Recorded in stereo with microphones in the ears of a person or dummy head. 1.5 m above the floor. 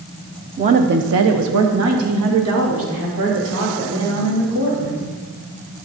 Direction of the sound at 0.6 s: 30° right (ahead or behind).